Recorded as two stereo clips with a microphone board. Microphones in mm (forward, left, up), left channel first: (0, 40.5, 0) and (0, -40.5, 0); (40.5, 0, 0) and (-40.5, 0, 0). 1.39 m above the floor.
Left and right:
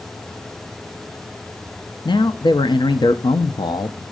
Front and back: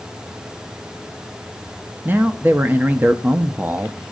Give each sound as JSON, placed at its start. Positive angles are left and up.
{"t": 2.0, "sound": "a man speaking", "azimuth_deg": 115, "distance_m": 0.5}